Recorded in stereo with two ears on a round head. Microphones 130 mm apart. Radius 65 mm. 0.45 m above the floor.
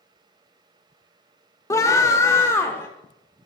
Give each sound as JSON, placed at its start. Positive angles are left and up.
{"t": 1.7, "sound": "a scream", "side_deg": 20, "distance_m": 1.0}